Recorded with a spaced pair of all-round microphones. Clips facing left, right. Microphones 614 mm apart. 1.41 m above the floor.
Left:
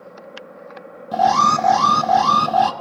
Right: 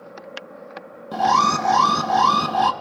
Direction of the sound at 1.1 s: 10° left (ahead or behind).